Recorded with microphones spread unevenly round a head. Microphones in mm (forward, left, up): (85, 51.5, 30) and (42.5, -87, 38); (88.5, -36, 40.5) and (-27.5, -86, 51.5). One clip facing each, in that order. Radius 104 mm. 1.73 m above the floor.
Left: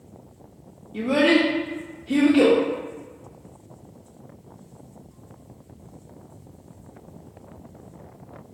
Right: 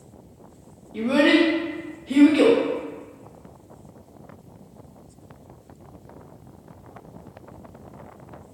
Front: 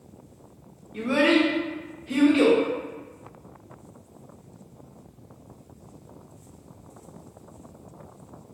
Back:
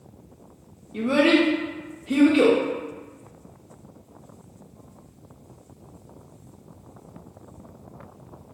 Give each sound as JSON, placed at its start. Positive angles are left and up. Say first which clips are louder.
{"t": 0.9, "sound": "a child speaking", "louder": "right 1 dB, back 2 dB", "azimuth_deg": 165, "distance_m": 0.6}